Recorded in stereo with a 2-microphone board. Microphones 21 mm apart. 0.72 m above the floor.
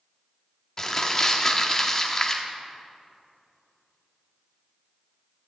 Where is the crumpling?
20° left (ahead or behind), 1.1 m.